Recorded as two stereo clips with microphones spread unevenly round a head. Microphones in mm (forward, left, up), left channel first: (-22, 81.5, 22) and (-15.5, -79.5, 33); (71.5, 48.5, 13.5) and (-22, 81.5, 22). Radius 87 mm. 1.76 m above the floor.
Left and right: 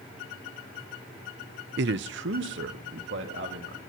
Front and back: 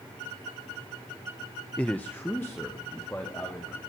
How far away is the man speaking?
About 0.6 m.